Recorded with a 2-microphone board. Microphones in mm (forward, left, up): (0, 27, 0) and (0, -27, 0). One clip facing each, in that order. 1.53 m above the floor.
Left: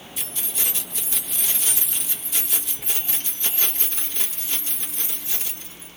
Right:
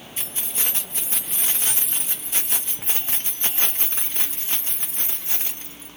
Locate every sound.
0.2 s keys jangling: 40° right (ahead or behind), 0.9 m